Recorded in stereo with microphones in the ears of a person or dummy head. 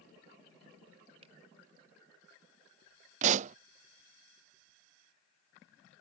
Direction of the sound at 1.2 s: 35° right (ahead or behind).